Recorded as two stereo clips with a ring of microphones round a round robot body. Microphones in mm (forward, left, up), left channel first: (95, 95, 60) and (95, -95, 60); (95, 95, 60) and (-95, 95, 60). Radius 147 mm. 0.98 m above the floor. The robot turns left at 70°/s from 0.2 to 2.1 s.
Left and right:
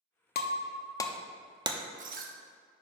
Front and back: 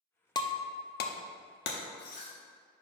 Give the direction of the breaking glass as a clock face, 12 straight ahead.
10 o'clock.